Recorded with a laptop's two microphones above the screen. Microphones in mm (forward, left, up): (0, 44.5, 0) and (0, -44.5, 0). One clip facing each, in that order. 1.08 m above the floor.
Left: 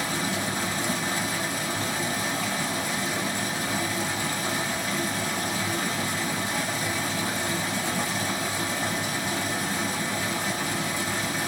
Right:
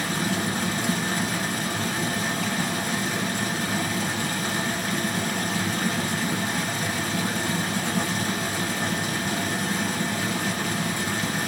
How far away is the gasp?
I don't hear a gasp.